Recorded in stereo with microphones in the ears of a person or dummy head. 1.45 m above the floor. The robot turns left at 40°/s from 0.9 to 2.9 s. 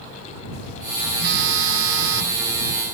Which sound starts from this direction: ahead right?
A phone buzzing, at 1.2 s.